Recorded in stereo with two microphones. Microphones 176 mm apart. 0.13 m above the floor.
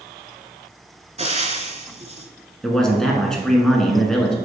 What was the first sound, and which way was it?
Frying, 40° right (ahead or behind).